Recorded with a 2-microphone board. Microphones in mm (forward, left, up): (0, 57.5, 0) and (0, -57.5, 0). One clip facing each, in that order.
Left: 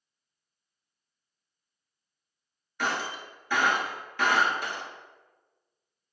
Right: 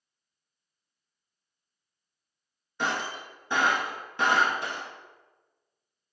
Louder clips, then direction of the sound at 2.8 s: Even; 25° right (ahead or behind).